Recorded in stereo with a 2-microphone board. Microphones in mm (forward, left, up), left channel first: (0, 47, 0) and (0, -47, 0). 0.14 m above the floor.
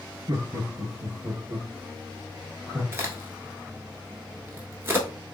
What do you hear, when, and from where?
0.3 s laughter: 50° right (ahead or behind), 2 m; by 2.8 s 5° right (ahead or behind), 2.5 m
2.9 s a crack: 25° right (ahead or behind), 1.2 m